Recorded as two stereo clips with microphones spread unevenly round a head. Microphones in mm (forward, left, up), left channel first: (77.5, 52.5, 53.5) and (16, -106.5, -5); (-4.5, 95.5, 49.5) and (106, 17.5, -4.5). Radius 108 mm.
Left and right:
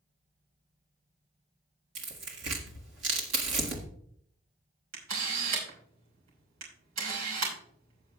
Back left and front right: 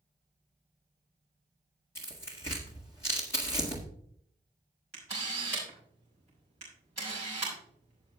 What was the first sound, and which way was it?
Tearing paper, 155° right.